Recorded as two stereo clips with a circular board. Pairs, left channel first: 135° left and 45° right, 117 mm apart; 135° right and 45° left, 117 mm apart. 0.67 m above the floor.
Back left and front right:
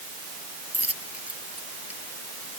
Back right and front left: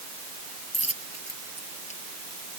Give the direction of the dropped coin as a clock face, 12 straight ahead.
4 o'clock.